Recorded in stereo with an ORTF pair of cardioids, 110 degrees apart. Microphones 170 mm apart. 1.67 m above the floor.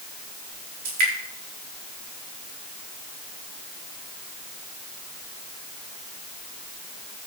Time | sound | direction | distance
0.8 | dripping | 70° right | 6.5 m